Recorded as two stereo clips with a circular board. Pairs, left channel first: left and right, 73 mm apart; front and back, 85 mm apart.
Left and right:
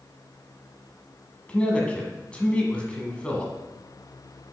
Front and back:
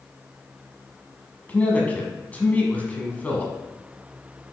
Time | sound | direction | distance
1.5 | a man speaking | 40° left | 1.4 m